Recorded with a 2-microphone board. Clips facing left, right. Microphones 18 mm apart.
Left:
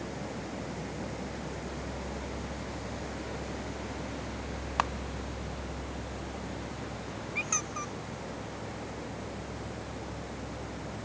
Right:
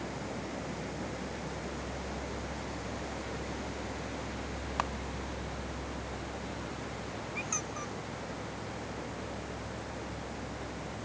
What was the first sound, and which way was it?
A camera shutter, 20° left (ahead or behind).